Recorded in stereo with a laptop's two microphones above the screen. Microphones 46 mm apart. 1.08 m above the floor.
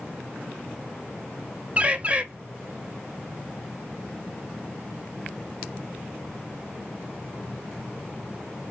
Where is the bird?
30° right (ahead or behind), 0.8 m.